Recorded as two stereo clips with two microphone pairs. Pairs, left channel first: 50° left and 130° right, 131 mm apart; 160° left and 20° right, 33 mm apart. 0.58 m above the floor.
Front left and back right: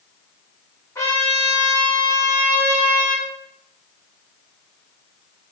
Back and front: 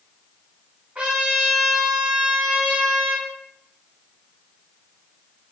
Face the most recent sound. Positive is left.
turn(degrees=-10)